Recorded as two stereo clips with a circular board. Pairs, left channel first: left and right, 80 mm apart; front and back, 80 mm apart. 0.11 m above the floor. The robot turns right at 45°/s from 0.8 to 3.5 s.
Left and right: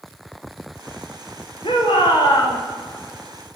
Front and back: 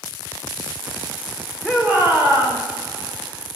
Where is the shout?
90° left, 7 m; by 2.6 s 130° left, 7 m.